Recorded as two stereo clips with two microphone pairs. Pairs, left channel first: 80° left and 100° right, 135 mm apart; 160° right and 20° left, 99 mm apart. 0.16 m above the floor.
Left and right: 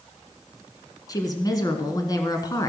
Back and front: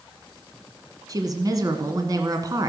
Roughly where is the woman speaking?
Ahead left.